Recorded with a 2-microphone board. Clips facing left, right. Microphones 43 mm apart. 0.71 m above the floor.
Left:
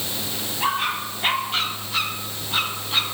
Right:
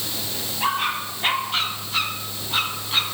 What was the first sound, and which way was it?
Only background noise.